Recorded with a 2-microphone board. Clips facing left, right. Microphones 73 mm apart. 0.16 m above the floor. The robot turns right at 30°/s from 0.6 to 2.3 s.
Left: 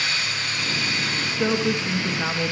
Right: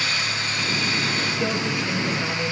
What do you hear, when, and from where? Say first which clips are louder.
1.3 s a woman speaking: left 2 dB; 20° left (ahead or behind), 2 m; by 2.5 s 35° left (ahead or behind), 2 m